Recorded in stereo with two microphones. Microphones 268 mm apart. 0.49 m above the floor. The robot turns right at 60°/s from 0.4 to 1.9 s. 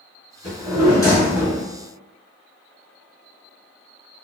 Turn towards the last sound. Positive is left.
turn(degrees=-140)